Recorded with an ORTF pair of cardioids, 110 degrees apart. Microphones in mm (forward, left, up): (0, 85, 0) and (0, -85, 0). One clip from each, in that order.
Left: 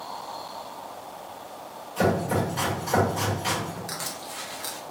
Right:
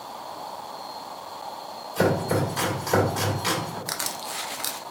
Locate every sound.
2.0 s chopping: 45° right, 1.9 m
3.9 s crushing: 40° right, 0.5 m